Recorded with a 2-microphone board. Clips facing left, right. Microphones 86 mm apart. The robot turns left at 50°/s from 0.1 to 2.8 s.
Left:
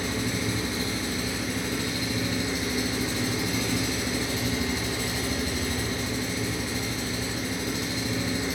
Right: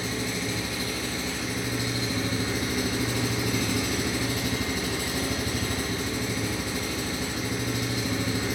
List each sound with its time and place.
0.0 s an engine running: 65° left, 1.2 m; by 8.6 s 70° right, 1.2 m